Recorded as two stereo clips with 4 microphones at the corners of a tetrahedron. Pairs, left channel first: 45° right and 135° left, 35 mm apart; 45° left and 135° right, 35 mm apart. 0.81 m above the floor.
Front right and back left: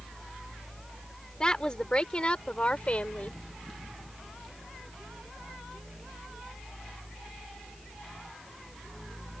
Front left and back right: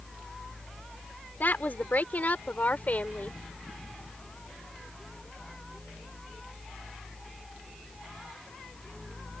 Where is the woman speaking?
20° left; by 3.4 s 5° left.